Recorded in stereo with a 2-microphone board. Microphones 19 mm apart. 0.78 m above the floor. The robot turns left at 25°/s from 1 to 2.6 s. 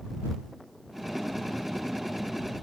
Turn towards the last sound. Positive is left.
No sound to turn to.